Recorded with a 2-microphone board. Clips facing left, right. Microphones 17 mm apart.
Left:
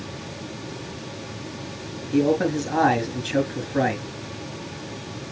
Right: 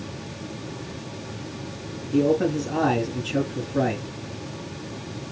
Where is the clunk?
No clunk in this recording.